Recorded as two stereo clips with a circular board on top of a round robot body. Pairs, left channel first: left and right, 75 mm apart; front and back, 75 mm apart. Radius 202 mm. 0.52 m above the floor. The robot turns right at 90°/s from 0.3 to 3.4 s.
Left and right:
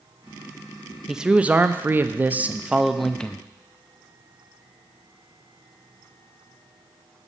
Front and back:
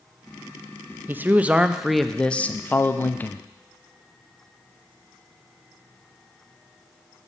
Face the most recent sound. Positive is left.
turn(degrees=40)